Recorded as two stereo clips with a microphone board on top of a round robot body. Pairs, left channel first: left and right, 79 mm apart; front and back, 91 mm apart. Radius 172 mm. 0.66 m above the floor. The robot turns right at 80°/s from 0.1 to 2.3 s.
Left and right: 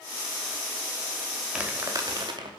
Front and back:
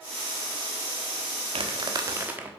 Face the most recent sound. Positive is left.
turn(degrees=-110)